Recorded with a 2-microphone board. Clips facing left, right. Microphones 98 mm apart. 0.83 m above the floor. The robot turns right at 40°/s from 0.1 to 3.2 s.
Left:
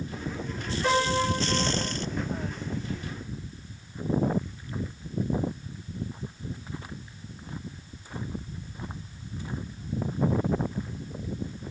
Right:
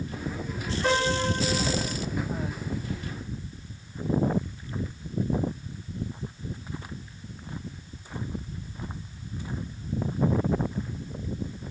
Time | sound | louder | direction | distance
0.8 | a piano | left 1 dB | 170° right | 1.4 m